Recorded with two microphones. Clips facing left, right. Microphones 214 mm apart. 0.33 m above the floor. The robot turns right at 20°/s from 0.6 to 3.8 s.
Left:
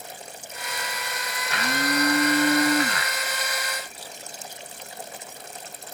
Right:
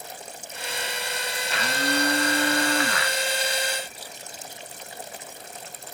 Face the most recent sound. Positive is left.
turn(degrees=165)